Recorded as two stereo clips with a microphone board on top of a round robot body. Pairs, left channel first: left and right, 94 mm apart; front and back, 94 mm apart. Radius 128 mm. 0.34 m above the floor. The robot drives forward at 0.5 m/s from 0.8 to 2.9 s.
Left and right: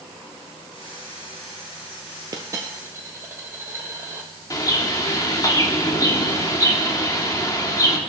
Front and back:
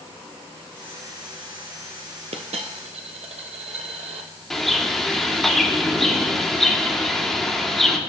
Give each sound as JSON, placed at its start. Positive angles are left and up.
{"t": 2.3, "sound": "a dropped coin", "azimuth_deg": -150, "distance_m": 0.7}
{"t": 4.5, "sound": "a bird", "azimuth_deg": 85, "distance_m": 1.6}